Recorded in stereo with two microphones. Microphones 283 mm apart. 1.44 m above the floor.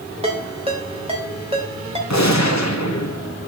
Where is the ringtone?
20° right (ahead or behind), 2.5 m.